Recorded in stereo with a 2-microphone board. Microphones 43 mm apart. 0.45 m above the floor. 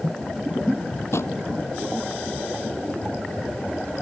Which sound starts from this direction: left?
A drawer, at 1.1 s.